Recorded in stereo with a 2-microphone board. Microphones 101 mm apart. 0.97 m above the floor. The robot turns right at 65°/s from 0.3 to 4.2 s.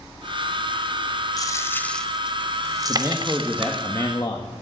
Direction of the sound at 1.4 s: 40° left (ahead or behind).